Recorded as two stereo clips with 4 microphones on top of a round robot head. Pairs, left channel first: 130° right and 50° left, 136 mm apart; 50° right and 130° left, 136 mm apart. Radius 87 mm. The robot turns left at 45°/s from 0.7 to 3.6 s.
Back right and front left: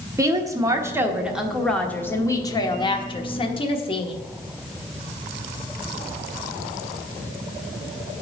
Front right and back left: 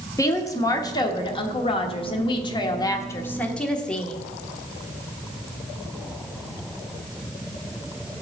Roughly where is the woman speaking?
Ahead.